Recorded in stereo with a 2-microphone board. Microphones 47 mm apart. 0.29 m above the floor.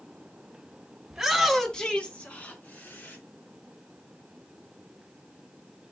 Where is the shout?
10° right (ahead or behind), 1.9 m; by 3.2 s 50° left (ahead or behind), 3 m.